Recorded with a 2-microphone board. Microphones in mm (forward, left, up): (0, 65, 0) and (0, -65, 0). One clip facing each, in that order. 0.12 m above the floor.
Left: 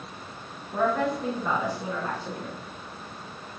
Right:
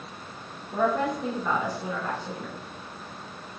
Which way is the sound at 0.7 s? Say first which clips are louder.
Even; 20° right (ahead or behind).